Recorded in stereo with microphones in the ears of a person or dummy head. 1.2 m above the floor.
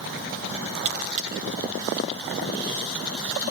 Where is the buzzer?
40° right (ahead or behind), 7 m.